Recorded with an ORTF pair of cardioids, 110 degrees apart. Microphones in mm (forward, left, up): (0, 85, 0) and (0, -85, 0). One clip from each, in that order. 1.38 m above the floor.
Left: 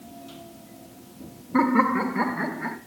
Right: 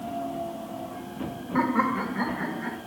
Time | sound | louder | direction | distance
1.5 | laughter | left 4 dB | 25° left | 2.5 m